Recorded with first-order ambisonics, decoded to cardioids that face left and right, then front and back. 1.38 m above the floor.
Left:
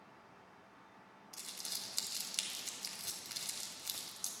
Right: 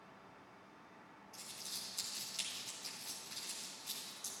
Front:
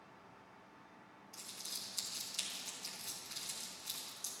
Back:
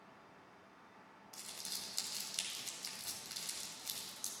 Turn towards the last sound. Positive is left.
turn(degrees=115)